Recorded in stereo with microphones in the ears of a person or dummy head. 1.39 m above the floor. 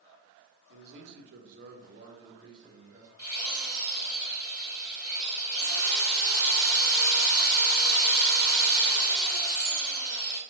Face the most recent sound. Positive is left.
turn(degrees=20)  # may be behind; listen again after turning